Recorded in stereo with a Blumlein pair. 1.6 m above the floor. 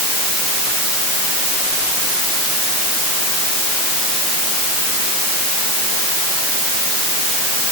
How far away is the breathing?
I don't hear breathing.